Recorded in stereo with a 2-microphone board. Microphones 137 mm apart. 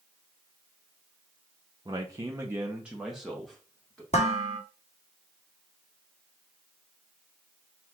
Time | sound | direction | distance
1.9 | a man speaking | 30° right (ahead or behind) | 0.7 m
4.1 | dishes clattering | 55° left (ahead or behind) | 1.1 m